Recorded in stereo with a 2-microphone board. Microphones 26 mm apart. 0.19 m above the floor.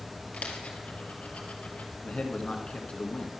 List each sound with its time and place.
0.3 s a dropped coin: 75° left (ahead or behind), 2 m
2.0 s a man speaking: 55° left (ahead or behind), 2 m